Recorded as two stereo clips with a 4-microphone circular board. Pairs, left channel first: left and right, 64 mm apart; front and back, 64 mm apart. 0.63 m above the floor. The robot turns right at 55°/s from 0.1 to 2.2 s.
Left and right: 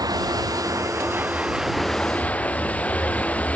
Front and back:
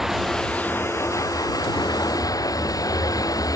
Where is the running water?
95° right; by 3.6 s 20° left.